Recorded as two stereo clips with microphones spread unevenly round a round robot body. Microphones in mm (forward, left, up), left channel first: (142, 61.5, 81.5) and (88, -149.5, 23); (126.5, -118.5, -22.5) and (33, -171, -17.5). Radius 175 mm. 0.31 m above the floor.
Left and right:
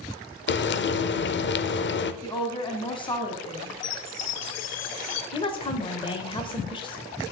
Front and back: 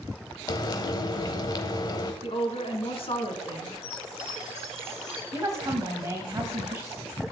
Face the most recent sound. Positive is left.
turn(degrees=150)